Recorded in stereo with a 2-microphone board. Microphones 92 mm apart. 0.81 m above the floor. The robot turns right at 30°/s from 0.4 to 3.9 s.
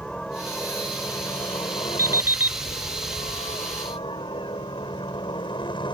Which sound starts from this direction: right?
An alarm clock, at 2.0 s.